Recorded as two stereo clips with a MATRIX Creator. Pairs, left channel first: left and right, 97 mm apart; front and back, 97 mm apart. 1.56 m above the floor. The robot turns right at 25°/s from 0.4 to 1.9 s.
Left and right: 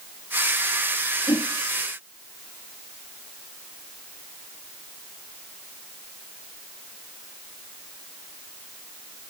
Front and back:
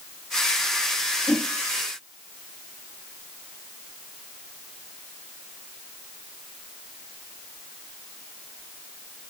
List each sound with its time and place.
1.3 s a whoosh: 65° left, 1.5 m; by 1.5 s 70° left, 1.5 m